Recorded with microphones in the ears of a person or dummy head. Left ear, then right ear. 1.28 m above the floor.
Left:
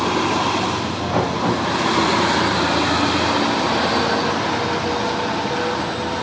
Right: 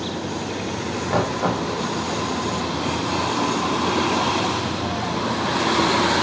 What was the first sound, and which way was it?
Knocking, 85° right.